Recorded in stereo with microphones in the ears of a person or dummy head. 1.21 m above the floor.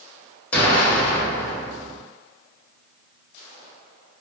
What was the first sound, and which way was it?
An explosion, 10° left (ahead or behind).